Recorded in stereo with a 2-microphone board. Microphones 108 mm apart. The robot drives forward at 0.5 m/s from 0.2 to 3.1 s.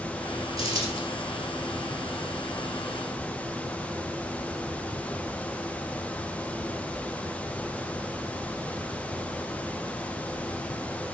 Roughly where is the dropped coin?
Right.